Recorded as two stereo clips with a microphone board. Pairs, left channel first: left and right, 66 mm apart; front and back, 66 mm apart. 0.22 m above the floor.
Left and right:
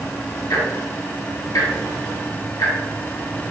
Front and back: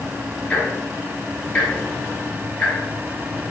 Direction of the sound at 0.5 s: 65° left.